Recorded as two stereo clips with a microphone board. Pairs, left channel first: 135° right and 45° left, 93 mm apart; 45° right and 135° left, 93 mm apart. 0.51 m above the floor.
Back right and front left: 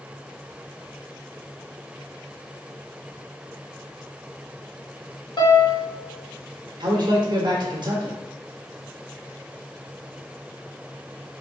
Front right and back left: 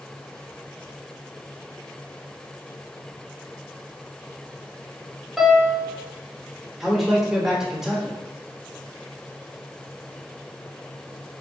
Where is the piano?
140° right, 0.9 m.